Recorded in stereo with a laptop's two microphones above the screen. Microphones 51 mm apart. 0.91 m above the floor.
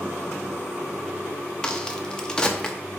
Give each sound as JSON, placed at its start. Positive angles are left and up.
{"t": 1.6, "sound": "a crack", "side_deg": 15, "distance_m": 0.5}